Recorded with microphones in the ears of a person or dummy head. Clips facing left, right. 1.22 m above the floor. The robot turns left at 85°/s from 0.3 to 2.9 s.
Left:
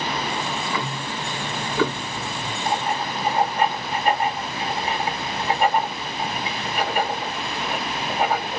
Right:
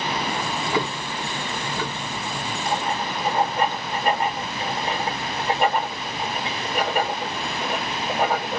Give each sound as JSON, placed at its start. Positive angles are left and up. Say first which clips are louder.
{"t": 0.4, "sound": "ticking", "louder": "right 2 dB", "azimuth_deg": -120, "distance_m": 0.5}
{"t": 2.6, "sound": "writing", "louder": "left 2 dB", "side_deg": -55, "distance_m": 1.7}